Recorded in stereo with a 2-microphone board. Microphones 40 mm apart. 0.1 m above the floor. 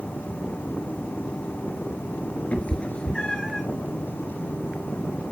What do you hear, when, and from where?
2.5 s a cat meowing: 35° left (ahead or behind), 1.0 m; by 3.6 s 5° left (ahead or behind), 1.0 m